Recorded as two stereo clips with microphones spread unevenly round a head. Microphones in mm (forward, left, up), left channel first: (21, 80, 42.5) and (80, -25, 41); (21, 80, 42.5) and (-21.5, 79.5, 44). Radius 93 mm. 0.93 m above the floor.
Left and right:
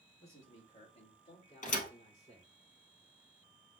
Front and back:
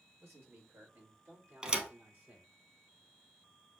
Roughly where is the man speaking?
Behind.